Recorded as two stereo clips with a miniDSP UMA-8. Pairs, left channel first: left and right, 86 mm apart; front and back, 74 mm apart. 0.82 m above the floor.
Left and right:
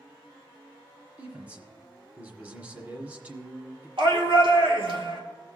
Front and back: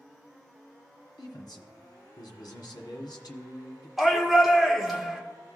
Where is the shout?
90° right, 1.9 m.